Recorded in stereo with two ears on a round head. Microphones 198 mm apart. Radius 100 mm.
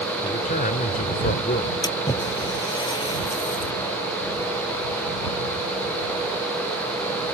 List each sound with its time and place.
0.2 s a man speaking: 35° left (ahead or behind)
1.8 s a splash: 20° left (ahead or behind)